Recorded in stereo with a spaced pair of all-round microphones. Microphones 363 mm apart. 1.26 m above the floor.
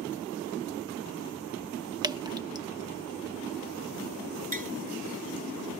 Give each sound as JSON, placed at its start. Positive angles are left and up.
{"t": 2.0, "sound": "dripping", "side_deg": -10}
{"t": 4.5, "sound": "tapping", "side_deg": -70}